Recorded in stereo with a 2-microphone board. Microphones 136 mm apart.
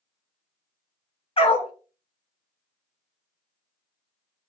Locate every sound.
1.4 s a dog barking: 45° left (ahead or behind), 0.7 m